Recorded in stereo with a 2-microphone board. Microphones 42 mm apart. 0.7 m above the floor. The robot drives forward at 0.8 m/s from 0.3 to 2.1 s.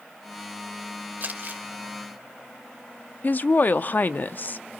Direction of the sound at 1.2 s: 40° right (ahead or behind).